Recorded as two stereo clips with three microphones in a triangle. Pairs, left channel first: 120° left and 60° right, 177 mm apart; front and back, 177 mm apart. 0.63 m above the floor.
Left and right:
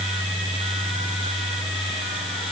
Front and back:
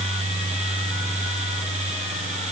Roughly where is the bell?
No bell in this recording.